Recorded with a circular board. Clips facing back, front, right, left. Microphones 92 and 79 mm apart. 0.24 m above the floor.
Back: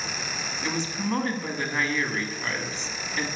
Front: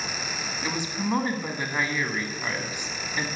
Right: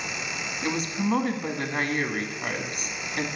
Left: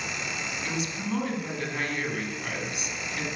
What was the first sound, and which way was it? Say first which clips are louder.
A woman speaking: even, right 8 dB; 75° right.